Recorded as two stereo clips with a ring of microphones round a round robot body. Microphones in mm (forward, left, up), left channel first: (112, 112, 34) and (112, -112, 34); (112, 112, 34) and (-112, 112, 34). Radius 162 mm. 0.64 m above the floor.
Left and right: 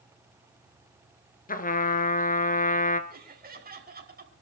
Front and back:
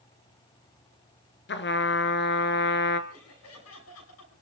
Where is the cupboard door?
I don't hear a cupboard door.